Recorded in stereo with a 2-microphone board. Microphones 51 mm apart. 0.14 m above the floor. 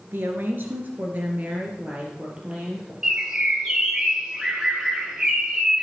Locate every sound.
0.1 s a woman speaking: 50° right (ahead or behind), 2 m; by 2.9 s 20° right (ahead or behind), 3 m
3.0 s a bird: 15° right (ahead or behind), 3 m